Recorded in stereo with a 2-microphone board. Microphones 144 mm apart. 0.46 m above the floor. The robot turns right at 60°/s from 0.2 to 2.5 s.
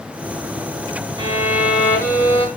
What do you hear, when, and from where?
1.2 s a violin: 35° right, 4.5 m; by 2.5 s 40° left, 4.5 m